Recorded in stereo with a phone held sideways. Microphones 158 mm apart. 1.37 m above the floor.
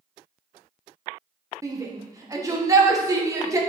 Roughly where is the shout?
Right.